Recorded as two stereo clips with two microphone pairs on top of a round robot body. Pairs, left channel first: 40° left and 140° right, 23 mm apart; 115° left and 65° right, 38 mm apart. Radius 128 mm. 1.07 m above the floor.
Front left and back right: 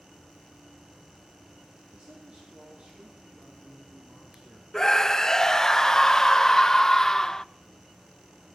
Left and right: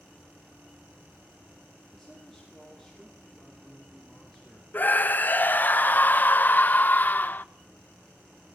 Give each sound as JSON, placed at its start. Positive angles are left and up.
{"t": 1.9, "sound": "a man speaking", "azimuth_deg": -160, "distance_m": 3.5}
{"t": 4.7, "sound": "a scream", "azimuth_deg": 90, "distance_m": 0.7}